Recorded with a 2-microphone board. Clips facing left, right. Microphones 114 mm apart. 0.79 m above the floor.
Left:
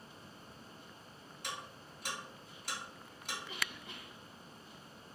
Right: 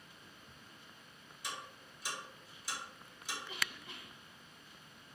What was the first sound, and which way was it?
Ticking, 65° left (ahead or behind).